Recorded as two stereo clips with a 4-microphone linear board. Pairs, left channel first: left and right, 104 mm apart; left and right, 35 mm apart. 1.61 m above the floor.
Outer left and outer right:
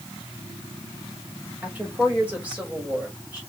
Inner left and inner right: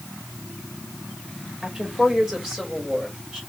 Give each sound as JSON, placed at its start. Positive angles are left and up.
{"t": 1.6, "sound": "a woman speaking", "side_deg": -15, "distance_m": 2.5}